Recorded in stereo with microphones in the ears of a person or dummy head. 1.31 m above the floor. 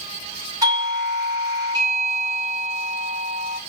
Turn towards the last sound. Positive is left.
turn(degrees=-20)  # may be behind; listen again after turning